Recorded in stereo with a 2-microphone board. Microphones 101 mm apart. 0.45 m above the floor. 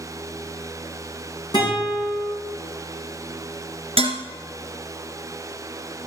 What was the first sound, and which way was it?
A guitar, 45° left (ahead or behind).